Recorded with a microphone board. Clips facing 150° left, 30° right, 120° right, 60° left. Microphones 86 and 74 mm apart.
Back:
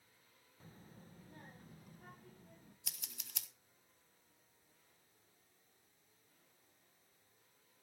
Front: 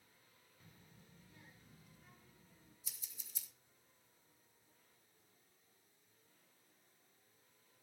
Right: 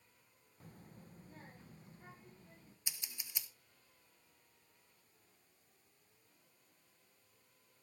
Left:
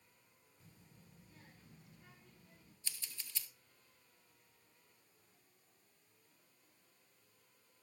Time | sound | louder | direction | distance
0.6 | a child speaking | back 7 dB, right 8 dB | 155° right | 0.8 m
2.9 | scissors | back 6 dB, right 1 dB | 165° left | 1.3 m